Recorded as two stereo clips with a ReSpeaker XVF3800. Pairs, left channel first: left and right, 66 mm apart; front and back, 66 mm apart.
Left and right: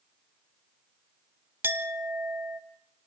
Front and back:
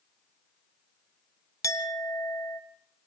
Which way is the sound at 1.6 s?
35° right.